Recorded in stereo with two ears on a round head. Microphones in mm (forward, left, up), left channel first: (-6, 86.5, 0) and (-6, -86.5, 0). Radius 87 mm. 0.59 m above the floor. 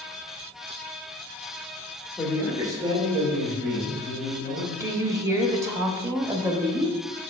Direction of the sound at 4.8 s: 15° right (ahead or behind).